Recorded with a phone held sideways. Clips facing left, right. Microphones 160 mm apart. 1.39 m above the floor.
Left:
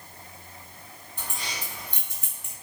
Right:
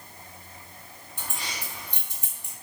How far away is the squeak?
No squeak in this recording.